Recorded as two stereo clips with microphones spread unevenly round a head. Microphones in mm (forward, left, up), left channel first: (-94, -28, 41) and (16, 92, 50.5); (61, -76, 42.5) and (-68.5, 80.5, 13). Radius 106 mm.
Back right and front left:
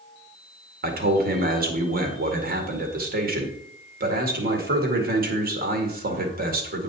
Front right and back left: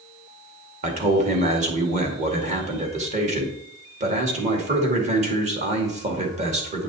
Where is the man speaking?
75° left, 2 m.